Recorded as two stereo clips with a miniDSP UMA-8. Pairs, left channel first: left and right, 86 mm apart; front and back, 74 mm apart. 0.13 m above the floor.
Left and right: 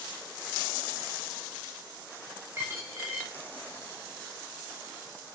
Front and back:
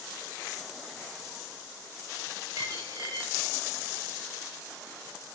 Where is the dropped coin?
150° right, 5 m.